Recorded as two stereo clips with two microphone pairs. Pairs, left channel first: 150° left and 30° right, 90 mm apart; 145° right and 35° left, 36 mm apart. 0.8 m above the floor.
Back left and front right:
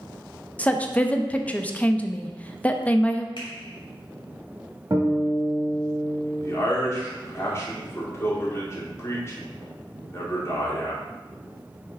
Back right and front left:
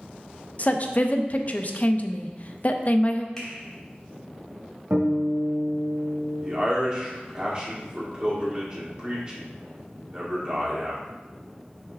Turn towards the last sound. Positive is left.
turn(degrees=95)